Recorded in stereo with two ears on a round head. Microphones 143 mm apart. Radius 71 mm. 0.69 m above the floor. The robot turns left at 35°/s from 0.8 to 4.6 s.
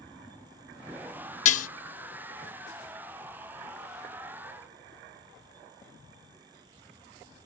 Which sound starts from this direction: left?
Dishes clattering, at 1.4 s.